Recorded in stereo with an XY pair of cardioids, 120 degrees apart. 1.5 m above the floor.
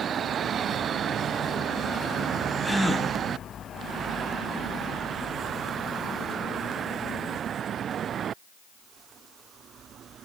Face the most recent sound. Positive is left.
turn(degrees=5)